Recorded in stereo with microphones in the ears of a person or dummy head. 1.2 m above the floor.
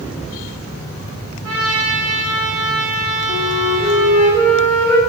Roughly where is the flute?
Left.